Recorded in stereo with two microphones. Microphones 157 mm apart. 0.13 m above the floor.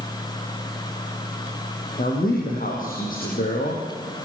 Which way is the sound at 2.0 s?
65° left (ahead or behind).